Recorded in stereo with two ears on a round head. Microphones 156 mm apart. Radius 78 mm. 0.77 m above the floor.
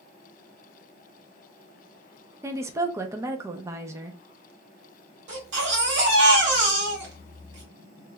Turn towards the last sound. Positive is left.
turn(degrees=-70)  # may be behind; listen again after turning